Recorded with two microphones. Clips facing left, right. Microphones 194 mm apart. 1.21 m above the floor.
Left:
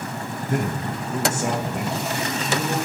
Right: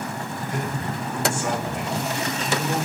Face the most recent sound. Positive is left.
turn(degrees=35)  # may be behind; listen again after turning